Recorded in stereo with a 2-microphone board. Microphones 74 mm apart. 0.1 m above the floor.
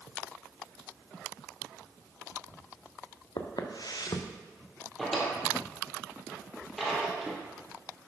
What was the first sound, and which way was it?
Footsteps, 70° left (ahead or behind).